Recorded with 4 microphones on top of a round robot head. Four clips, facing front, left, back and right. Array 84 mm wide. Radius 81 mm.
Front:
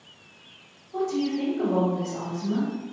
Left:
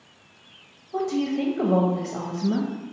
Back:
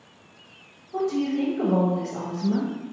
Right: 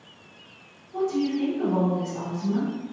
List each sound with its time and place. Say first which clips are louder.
0.9 s a woman speaking: even, back 2 dB; 105° left, 0.9 m